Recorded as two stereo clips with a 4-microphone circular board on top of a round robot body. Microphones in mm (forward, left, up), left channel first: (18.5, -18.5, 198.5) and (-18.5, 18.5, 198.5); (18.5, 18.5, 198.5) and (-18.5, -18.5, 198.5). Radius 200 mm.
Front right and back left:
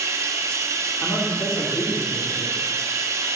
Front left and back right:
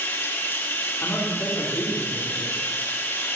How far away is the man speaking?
About 3 m.